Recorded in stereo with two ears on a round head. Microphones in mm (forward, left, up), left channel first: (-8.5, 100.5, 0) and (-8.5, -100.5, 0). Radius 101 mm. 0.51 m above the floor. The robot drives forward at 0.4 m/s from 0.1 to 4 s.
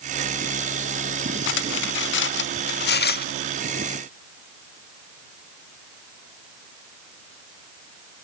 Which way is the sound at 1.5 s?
60° left (ahead or behind).